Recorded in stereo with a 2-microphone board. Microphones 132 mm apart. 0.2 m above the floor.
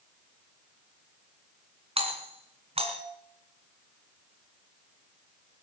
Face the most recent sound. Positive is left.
turn(degrees=-45)  # may be behind; listen again after turning